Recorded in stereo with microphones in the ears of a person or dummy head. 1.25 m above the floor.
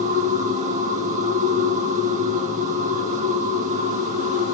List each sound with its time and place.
0.0 s a machine running: 45° right (ahead or behind), 3 m